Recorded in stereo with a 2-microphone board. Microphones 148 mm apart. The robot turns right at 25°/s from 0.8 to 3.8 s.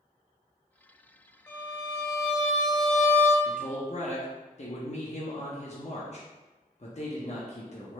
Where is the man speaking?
55° left (ahead or behind), 0.9 m; by 8.0 s 50° left (ahead or behind), 0.9 m.